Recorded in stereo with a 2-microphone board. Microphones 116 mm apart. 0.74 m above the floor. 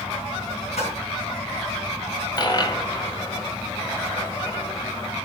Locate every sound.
0.8 s a splash: 65° left (ahead or behind), 4 m
2.4 s a dropped coin: 35° left (ahead or behind), 1.8 m